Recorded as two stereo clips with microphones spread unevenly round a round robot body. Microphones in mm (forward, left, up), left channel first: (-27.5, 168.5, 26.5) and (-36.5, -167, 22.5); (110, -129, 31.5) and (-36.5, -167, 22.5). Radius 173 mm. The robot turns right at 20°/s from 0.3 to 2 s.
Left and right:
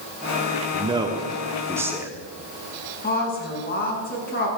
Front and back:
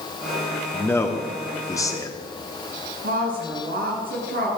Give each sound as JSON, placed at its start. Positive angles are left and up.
{"t": 0.7, "sound": "a man speaking", "azimuth_deg": -45, "distance_m": 1.3}
{"t": 3.0, "sound": "a woman speaking", "azimuth_deg": 150, "distance_m": 5.5}